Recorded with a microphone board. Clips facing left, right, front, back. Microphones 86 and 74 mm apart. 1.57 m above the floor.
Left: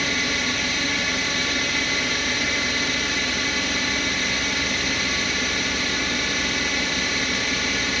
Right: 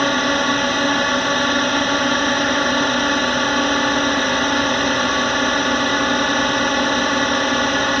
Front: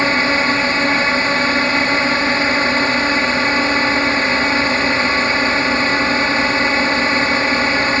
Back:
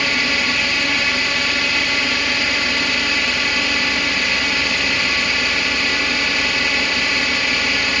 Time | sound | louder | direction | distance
0.0 | a drone | right 9 dB, front 5 dB | 55° right | ?